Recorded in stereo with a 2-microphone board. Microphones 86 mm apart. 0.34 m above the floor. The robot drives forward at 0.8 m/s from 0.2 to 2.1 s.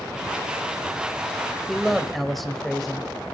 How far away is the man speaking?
About 1.1 m.